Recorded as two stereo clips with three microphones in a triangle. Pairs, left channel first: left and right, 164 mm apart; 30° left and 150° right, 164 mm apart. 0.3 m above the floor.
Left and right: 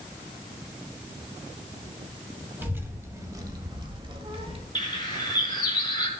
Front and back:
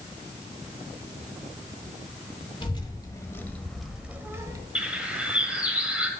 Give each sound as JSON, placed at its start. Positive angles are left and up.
{"t": 2.6, "sound": "a child speaking", "azimuth_deg": -15, "distance_m": 1.4}
{"t": 4.8, "sound": "a bird", "azimuth_deg": 130, "distance_m": 1.3}